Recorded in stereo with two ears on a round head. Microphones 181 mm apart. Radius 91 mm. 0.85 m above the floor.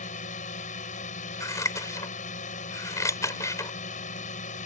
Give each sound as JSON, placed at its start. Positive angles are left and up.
{"t": 0.0, "sound": "a drone", "side_deg": 40}
{"t": 1.4, "sound": "scissors", "side_deg": 15}